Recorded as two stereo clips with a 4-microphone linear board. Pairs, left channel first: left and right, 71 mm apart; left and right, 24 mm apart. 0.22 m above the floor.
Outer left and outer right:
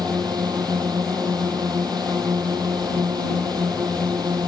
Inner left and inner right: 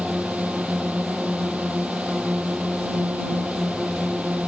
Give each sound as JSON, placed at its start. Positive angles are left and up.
{"t": 0.0, "sound": "a drone", "side_deg": -80}